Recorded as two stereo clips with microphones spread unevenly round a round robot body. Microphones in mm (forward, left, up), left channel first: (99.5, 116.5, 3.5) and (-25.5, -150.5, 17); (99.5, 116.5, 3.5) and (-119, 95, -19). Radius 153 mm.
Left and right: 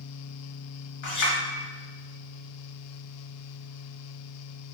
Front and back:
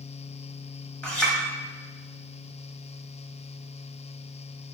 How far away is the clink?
About 1.1 m.